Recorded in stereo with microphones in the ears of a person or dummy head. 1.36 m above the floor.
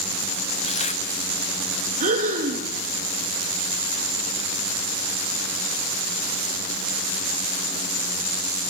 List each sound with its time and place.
0.6 s tearing paper: 35° left (ahead or behind), 1.5 m
2.0 s breathing: 40° right (ahead or behind), 2.5 m